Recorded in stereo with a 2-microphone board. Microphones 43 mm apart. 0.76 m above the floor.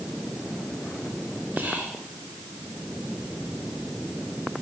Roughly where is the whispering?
Right.